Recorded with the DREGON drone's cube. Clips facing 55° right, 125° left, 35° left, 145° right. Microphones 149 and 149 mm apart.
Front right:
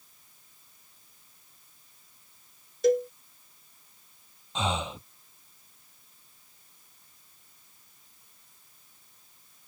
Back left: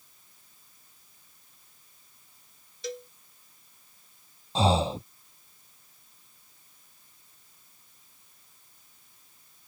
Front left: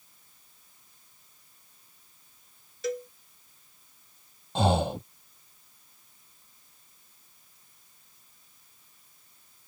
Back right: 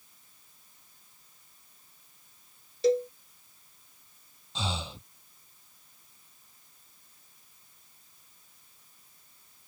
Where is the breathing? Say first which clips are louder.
Back left 7 dB, front left 12 dB; 70° left.